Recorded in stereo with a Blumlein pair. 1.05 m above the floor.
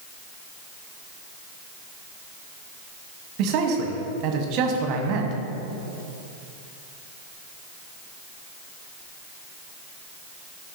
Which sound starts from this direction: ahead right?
A man speaking, at 3.4 s.